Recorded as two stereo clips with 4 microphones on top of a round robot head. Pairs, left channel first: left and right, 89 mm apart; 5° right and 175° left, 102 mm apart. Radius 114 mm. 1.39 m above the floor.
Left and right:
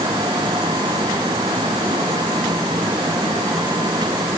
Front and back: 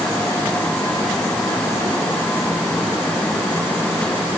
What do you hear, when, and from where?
Only background noise.